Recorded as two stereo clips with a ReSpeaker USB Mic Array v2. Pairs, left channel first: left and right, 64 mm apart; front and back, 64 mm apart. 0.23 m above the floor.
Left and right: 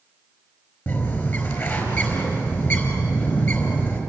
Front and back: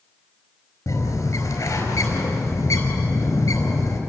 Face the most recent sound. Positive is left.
turn(degrees=40)